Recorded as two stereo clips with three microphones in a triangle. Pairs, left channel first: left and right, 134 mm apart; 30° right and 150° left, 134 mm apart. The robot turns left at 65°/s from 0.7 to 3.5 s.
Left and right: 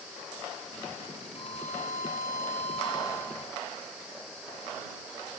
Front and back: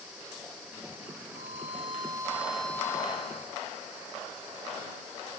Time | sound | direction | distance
1.4 | a violin | 140° left | ?